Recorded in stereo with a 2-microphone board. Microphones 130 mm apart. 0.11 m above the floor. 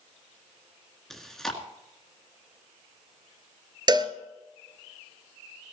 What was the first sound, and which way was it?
Chewing, 5° left (ahead or behind).